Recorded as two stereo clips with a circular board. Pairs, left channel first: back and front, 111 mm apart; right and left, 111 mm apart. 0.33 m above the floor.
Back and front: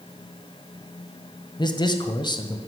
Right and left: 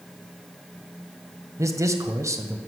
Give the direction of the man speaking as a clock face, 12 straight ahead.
7 o'clock.